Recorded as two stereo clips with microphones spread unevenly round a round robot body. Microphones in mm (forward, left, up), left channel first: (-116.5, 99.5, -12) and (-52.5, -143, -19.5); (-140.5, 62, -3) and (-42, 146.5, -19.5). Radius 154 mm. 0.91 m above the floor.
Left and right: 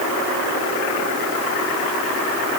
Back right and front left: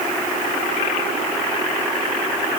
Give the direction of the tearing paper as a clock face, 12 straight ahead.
I don't hear tearing paper.